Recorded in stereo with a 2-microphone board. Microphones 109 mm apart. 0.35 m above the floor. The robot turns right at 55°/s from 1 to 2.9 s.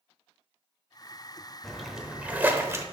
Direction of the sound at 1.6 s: 5° left (ahead or behind).